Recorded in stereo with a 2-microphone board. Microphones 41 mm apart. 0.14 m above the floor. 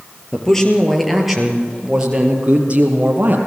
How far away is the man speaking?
About 4 m.